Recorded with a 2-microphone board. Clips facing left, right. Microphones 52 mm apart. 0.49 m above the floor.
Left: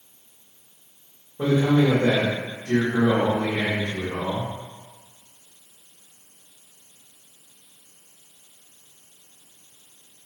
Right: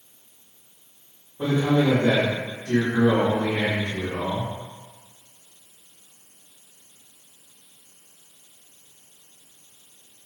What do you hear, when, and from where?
1.4 s a man speaking: 60° left (ahead or behind), 1.5 m